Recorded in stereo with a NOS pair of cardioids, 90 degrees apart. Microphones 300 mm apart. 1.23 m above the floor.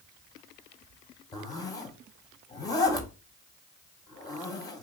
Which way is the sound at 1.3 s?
10° left.